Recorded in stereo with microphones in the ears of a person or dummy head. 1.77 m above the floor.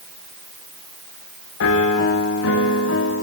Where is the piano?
65° left (ahead or behind), 1.5 m.